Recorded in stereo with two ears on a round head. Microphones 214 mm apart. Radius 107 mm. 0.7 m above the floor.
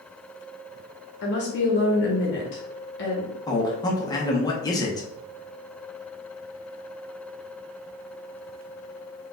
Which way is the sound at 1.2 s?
45° left (ahead or behind).